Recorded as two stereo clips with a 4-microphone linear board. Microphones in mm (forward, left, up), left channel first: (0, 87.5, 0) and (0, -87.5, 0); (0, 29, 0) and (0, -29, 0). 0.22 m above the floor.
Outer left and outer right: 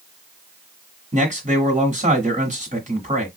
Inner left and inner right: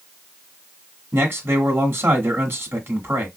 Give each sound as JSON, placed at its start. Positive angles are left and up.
{"t": 1.1, "sound": "a man speaking", "side_deg": -45, "distance_m": 1.6}